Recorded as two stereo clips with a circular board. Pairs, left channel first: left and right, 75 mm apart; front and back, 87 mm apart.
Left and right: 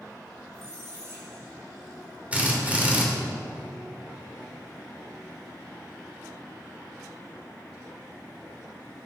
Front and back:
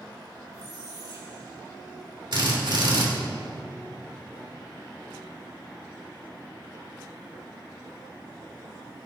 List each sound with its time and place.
0.5 s a squeak: 140° right, 3.5 m
2.3 s a drill: 160° right, 2.5 m